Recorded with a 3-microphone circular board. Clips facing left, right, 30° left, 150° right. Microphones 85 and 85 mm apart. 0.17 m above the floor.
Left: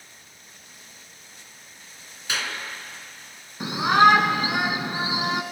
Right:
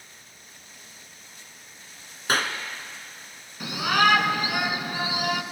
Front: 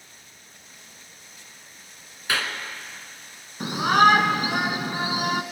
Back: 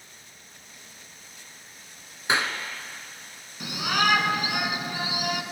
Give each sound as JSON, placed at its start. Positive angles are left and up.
{"t": 2.3, "sound": "a clap", "azimuth_deg": -95, "distance_m": 1.9}
{"t": 3.6, "sound": "a shout", "azimuth_deg": 40, "distance_m": 1.7}